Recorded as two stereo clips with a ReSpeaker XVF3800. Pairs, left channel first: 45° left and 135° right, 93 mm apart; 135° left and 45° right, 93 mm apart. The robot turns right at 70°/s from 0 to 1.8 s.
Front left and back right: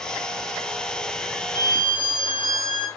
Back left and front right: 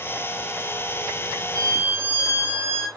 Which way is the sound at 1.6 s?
5° left.